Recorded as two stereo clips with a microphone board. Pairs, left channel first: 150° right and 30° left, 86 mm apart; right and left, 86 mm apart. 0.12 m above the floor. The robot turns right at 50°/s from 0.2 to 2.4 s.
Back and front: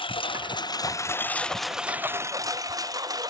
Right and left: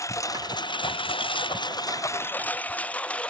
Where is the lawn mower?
140° right; by 3.3 s 15° right.